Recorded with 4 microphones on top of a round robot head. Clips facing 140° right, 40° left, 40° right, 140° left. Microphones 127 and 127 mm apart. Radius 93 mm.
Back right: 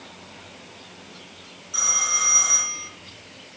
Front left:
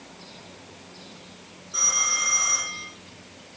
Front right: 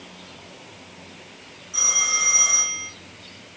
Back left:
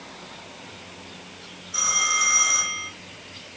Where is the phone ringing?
95° right, 4.5 m.